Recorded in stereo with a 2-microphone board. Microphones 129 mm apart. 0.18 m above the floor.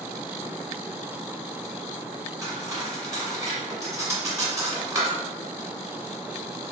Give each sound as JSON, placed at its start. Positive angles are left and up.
{"t": 2.4, "sound": "cutlery clinking", "side_deg": -25, "distance_m": 1.2}